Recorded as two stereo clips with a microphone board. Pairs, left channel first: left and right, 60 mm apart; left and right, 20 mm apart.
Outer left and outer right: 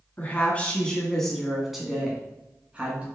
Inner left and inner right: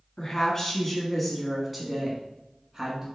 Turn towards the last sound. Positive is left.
turn(degrees=-20)  # may be behind; listen again after turning